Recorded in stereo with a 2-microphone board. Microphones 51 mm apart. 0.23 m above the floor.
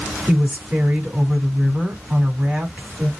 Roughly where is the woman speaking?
Right.